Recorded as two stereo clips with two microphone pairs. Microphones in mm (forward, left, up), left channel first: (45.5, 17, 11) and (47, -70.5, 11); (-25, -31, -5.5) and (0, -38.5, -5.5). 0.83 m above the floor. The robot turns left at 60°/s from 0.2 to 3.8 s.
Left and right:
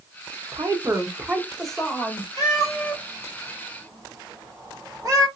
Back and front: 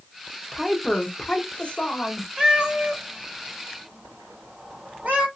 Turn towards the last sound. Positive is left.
turn(degrees=-40)